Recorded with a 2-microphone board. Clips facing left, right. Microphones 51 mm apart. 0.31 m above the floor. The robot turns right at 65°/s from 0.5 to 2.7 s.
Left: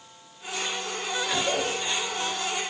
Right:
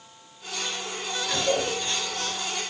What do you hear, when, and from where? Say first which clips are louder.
1.3 s a cough: right 3 dB; 20° left (ahead or behind), 7 m; by 2.4 s 50° right (ahead or behind), 7 m